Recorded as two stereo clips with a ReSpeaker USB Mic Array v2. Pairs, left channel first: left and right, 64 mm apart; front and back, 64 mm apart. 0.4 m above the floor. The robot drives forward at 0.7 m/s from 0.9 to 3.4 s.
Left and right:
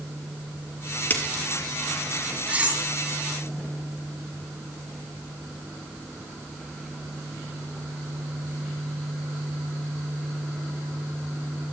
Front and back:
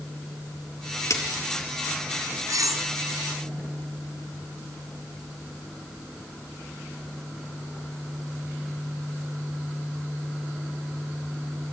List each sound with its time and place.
1.1 s a splash: 30° left, 3.5 m; by 1.4 s 35° left, 3 m
2.5 s cutlery clinking: 155° right, 3.5 m; by 2.8 s 160° right, 3.5 m